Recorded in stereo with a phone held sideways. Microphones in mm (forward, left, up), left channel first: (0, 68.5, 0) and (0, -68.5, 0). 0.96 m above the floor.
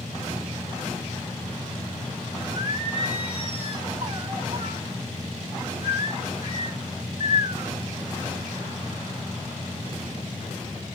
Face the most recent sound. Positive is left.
turn(degrees=-45)  # may be behind; listen again after turning